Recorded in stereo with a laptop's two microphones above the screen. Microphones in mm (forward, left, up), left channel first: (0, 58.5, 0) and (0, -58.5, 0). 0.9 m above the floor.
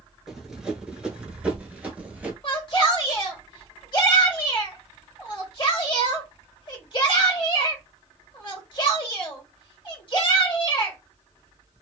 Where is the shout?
40° left (ahead or behind), 1.5 m.